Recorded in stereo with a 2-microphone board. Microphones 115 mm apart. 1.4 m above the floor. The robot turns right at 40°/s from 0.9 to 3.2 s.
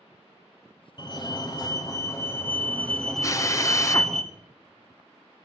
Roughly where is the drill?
Left.